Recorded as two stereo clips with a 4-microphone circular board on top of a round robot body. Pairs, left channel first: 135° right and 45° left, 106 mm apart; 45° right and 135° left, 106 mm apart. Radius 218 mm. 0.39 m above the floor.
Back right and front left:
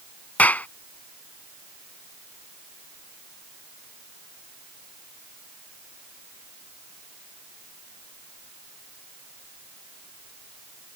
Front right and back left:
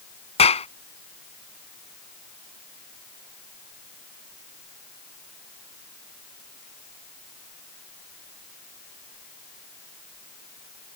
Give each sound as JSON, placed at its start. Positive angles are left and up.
{"t": 0.4, "sound": "a clap", "azimuth_deg": -60}